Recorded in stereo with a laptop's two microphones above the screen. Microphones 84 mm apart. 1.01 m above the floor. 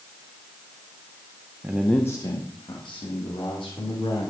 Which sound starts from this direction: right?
A man speaking, at 1.6 s.